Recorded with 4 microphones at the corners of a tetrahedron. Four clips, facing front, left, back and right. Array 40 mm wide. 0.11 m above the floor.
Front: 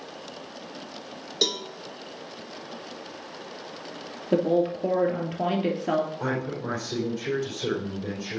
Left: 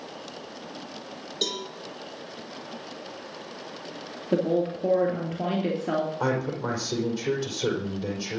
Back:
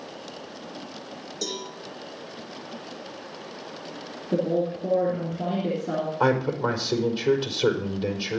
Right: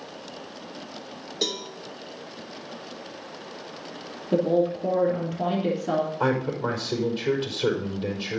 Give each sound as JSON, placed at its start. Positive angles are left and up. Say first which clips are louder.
{"t": 1.4, "sound": "a cowbell", "louder": "right 1 dB, front 7 dB", "azimuth_deg": -5, "distance_m": 3.5}
{"t": 4.3, "sound": "a woman speaking", "louder": "right 2 dB, front 2 dB", "azimuth_deg": 25, "distance_m": 2.5}
{"t": 6.2, "sound": "a man speaking", "louder": "right 2 dB, back 7 dB", "azimuth_deg": -160, "distance_m": 4.5}